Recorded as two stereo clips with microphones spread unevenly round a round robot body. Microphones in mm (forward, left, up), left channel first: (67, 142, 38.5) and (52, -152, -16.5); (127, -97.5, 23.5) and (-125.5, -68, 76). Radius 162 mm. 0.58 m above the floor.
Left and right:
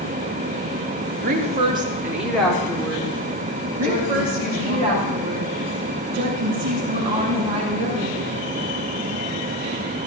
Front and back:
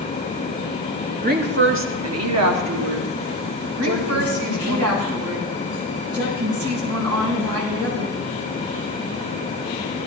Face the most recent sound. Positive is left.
turn(degrees=-170)